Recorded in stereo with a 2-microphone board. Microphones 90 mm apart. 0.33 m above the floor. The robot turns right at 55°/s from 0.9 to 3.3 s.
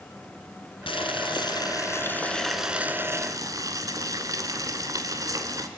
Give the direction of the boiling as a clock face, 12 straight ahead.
9 o'clock.